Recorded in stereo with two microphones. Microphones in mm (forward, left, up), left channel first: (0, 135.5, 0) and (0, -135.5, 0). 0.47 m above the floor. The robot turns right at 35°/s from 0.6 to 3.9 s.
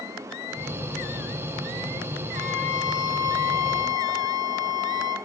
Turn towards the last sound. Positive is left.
turn(degrees=100)